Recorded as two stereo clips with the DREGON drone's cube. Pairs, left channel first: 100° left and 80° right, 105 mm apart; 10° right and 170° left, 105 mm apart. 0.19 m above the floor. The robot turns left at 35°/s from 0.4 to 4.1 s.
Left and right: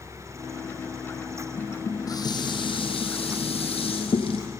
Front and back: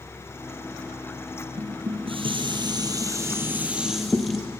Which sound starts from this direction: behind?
Dishes clattering, at 1.6 s.